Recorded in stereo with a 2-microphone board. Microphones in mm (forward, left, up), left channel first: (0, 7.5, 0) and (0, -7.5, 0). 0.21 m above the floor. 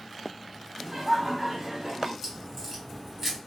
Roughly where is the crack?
Centre.